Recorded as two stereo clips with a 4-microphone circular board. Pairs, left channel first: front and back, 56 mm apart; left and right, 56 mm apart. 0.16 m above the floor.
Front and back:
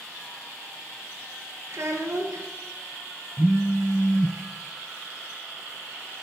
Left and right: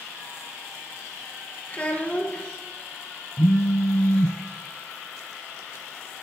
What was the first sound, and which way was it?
A child speaking, 150° left.